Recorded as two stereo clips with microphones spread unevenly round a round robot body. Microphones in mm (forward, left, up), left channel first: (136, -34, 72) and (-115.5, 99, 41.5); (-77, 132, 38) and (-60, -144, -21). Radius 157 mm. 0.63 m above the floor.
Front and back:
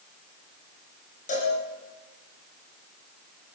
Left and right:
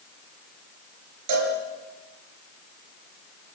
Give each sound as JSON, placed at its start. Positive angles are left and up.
{"t": 1.3, "sound": "a cowbell", "azimuth_deg": -95, "distance_m": 6.0}